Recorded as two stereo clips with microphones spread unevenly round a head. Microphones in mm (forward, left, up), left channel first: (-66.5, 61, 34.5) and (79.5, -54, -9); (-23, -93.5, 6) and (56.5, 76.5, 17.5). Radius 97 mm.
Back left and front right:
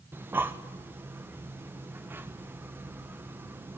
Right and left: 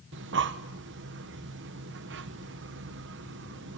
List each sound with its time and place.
0.1 s breathing: 40° left, 1.2 m